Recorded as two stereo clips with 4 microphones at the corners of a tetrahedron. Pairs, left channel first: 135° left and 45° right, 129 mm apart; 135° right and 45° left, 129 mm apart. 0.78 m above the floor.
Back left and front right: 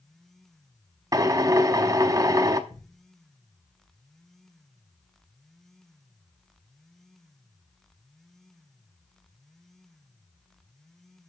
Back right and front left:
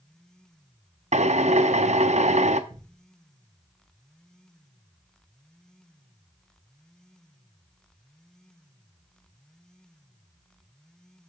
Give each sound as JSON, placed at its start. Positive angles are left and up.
{"t": 1.1, "sound": "a drill", "azimuth_deg": 20, "distance_m": 0.7}
{"t": 2.7, "sound": "a thud", "azimuth_deg": 95, "distance_m": 3.5}